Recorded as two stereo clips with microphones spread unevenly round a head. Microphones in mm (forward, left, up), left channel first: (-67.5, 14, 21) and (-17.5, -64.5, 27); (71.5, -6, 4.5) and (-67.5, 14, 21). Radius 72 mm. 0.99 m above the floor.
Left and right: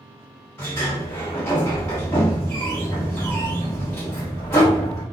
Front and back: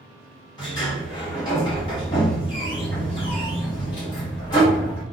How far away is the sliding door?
About 1.2 m.